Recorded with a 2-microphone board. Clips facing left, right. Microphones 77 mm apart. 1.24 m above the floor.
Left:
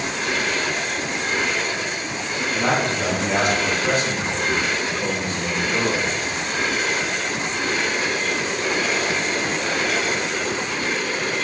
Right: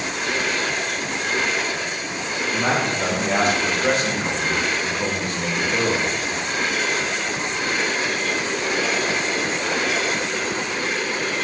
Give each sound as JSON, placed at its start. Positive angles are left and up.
{"t": 2.5, "sound": "a man speaking", "side_deg": -25, "distance_m": 1.8}